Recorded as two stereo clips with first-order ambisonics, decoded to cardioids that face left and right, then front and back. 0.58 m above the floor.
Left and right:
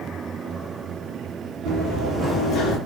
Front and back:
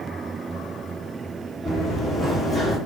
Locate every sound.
1.6 s running footsteps: 100° right, 1.0 m; by 2.8 s 85° left, 0.8 m